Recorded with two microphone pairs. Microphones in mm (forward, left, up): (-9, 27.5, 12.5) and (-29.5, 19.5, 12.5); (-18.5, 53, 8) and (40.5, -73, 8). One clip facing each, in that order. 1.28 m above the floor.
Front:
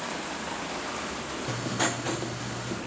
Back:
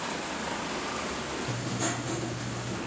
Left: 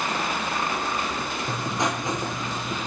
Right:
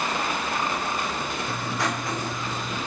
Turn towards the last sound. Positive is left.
turn(degrees=45)